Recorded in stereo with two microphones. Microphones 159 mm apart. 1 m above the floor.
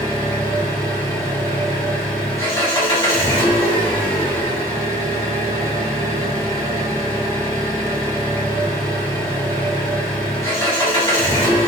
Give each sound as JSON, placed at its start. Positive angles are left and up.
{"t": 0.0, "sound": "an engine running", "side_deg": 20, "distance_m": 1.9}